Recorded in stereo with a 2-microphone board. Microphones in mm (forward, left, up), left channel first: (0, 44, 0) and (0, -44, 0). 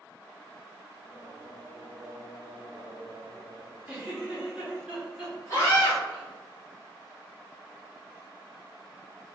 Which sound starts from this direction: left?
A scream, at 5.5 s.